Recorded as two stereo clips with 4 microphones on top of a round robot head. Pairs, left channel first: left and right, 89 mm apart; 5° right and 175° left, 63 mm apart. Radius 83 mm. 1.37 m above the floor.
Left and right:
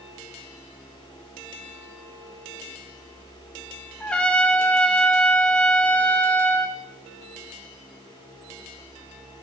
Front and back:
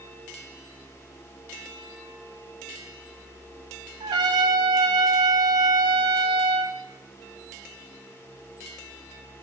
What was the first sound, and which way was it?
A trumpet, 170° left.